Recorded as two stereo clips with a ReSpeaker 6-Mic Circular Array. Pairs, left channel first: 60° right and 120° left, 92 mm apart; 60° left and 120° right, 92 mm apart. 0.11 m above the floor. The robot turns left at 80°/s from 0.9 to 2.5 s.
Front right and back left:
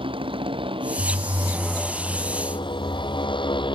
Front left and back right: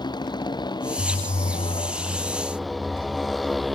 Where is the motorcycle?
100° left; by 3.8 s 30° right.